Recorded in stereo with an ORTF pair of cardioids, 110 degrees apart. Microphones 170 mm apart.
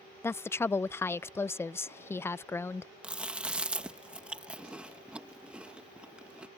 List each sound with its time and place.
0.2 s a woman speaking: 15° left
3.0 s chewing: 5° right